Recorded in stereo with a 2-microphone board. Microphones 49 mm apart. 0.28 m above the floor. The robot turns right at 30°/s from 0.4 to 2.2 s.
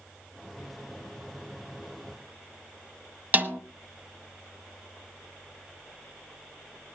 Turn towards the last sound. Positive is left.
turn(degrees=-35)  # may be behind; listen again after turning